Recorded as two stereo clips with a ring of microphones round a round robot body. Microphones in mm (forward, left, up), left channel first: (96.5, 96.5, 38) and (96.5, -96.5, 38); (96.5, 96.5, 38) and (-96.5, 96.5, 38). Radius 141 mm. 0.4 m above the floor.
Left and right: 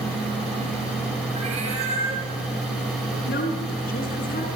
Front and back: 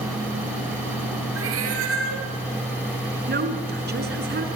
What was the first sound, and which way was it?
A cat meowing, 160° right.